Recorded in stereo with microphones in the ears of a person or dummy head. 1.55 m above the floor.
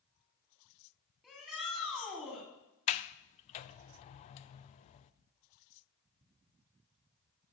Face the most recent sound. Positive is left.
turn(degrees=40)  # may be behind; listen again after turning